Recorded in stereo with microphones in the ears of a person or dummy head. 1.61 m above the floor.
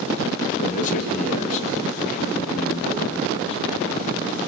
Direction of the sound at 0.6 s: 50° left (ahead or behind).